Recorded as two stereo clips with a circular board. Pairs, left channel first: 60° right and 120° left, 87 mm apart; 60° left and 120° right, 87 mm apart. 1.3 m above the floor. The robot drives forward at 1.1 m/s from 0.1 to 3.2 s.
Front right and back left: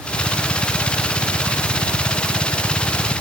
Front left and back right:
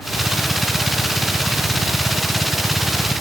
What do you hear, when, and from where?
Only background noise.